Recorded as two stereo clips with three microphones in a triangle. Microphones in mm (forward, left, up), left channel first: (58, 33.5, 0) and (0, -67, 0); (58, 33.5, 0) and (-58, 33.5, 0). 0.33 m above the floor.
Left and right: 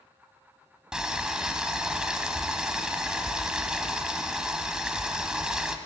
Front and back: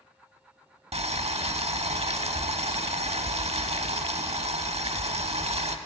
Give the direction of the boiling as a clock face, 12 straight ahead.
7 o'clock.